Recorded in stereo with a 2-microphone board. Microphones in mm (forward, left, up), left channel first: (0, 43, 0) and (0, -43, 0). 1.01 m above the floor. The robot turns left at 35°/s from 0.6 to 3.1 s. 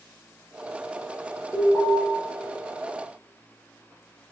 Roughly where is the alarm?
Centre.